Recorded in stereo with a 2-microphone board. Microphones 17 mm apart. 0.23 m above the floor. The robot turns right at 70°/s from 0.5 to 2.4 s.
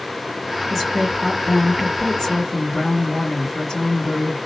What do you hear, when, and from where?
0.7 s a woman speaking: 50° right, 3 m; by 4.4 s 70° left, 3 m